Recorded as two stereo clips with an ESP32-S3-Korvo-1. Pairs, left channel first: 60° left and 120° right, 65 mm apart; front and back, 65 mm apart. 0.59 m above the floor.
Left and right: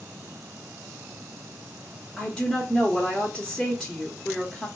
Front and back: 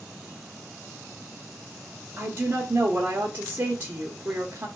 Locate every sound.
2.2 s a woman speaking: 140° left, 1.0 m